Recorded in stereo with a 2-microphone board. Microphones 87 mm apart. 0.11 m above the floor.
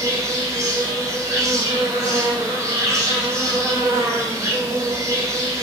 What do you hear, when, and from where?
0.0 s an insect: 35° right (ahead or behind), 1.2 m